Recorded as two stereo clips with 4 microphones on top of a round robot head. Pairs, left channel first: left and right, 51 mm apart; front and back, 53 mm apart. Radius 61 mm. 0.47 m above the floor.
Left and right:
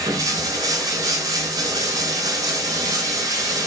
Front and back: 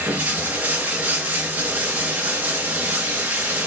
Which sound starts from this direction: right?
Running water, at 0.0 s.